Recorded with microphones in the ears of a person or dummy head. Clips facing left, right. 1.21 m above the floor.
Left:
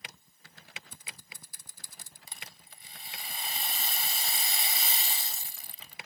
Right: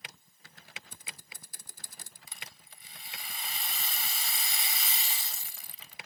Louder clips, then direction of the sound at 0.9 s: Even; 45° right (ahead or behind).